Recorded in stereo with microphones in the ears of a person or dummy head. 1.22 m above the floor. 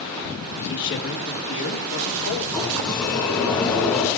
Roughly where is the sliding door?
Centre.